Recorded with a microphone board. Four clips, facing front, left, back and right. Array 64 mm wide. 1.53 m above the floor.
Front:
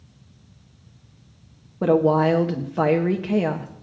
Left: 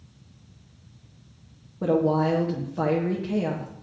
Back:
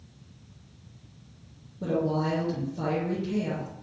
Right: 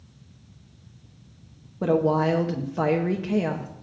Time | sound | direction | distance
1.8 | a woman speaking | 15° right | 0.9 m